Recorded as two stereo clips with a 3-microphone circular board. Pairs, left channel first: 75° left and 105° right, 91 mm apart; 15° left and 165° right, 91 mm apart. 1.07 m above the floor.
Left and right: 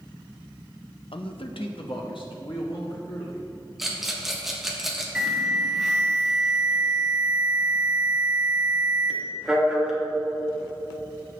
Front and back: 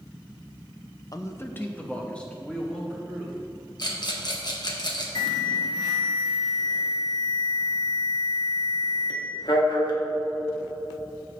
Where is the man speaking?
65° left, 0.7 m; by 3.4 s 100° left, 3 m.